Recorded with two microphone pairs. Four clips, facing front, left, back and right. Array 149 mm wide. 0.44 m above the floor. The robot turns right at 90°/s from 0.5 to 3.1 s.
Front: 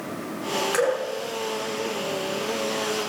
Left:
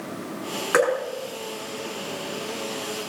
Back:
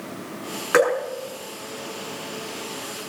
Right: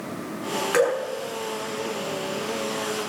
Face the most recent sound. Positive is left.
turn(degrees=-10)